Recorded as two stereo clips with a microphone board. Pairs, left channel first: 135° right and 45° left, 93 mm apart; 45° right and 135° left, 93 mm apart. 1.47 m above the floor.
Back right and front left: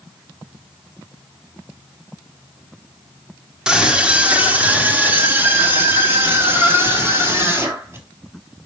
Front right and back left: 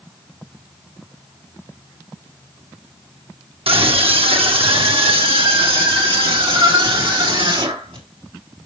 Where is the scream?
130° left, 1.3 m; by 8.0 s 110° left, 3.5 m.